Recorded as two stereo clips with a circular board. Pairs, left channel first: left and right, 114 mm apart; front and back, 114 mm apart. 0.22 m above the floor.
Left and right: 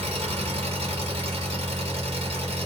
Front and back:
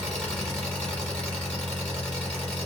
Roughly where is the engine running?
Right.